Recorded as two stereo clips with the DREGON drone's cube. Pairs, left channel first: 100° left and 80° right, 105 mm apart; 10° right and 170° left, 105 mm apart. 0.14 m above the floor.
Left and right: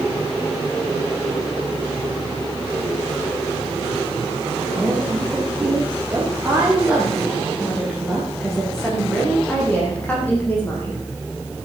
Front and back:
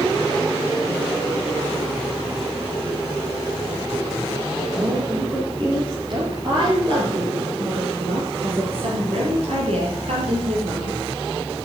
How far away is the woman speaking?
About 5.5 m.